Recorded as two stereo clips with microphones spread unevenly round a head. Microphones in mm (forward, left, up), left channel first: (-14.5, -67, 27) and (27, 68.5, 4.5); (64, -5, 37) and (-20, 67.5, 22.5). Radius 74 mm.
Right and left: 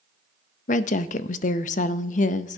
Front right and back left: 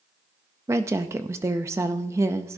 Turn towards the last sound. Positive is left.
turn(degrees=-150)